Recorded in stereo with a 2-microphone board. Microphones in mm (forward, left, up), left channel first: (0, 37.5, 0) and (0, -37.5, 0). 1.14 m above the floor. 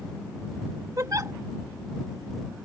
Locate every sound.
1.0 s a giggle: 50° right (ahead or behind)